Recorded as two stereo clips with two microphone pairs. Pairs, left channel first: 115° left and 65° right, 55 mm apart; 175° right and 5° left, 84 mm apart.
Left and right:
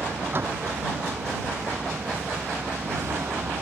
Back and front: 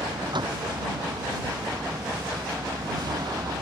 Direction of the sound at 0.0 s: 20° right.